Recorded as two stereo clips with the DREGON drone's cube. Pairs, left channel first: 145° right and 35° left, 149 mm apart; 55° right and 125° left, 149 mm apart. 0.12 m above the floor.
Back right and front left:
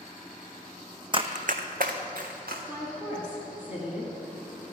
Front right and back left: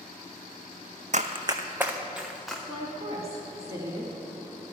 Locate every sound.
1.1 s running footsteps: 90° left, 0.5 m; by 2.6 s 35° left, 1.6 m
2.7 s a woman speaking: 95° left, 1.4 m